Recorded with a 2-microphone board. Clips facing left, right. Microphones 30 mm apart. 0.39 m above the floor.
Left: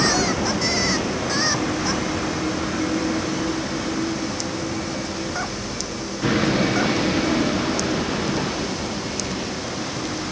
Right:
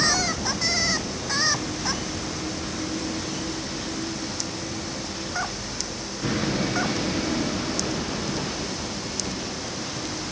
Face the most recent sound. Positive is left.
turn(degrees=25)  # may be behind; listen again after turning